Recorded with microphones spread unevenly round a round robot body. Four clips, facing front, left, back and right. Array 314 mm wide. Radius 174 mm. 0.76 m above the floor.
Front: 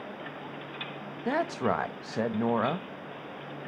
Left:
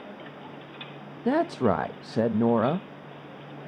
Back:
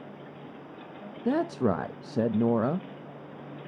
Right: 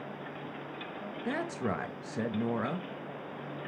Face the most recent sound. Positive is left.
turn(degrees=120)